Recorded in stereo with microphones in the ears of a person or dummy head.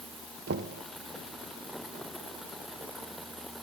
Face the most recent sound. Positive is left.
turn(degrees=-50)  # may be behind; listen again after turning